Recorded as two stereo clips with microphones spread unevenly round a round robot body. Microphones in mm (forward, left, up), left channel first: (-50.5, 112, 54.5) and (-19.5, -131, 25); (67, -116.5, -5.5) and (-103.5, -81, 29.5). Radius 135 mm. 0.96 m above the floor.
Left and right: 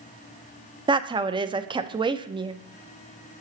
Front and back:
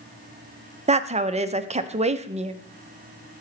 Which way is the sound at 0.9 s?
140° right.